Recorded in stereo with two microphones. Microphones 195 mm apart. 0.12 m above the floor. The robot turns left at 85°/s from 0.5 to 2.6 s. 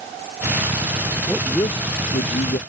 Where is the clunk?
I don't hear a clunk.